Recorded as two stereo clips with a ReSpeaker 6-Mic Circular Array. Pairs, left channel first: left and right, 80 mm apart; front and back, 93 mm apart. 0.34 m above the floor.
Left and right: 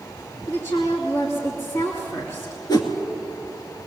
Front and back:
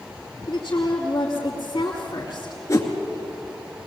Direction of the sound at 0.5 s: 45° left.